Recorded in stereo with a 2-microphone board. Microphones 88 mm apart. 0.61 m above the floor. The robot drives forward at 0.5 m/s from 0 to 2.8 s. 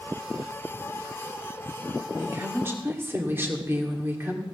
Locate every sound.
2.2 s a woman speaking: 30° right (ahead or behind), 1.7 m; by 4.4 s 25° right (ahead or behind), 1.9 m